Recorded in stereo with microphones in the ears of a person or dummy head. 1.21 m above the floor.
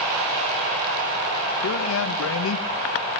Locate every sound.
1.6 s a man speaking: 75° left (ahead or behind), 0.9 m